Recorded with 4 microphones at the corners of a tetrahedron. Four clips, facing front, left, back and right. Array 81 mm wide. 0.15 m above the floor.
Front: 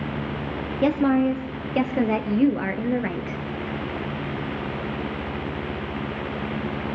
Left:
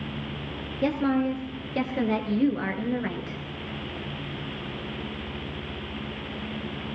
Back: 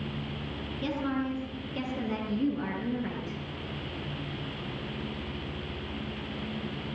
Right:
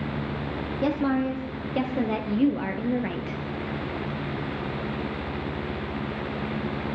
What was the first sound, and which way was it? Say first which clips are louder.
A woman speaking: left 1 dB, front 12 dB; straight ahead.